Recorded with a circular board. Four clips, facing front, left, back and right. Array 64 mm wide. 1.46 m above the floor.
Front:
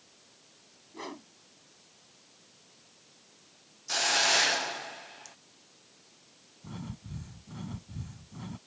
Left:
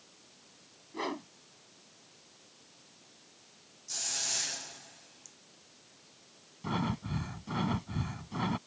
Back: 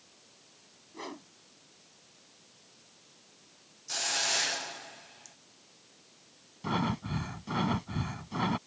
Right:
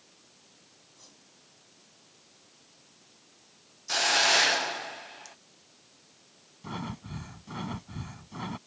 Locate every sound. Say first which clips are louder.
0.9 s a whoosh: left 28 dB, front 1 dB; 85° left
3.9 s a hiss: right 18 dB, front 6 dB; 65° right
6.6 s breathing: left 4 dB, back 12 dB; 170° left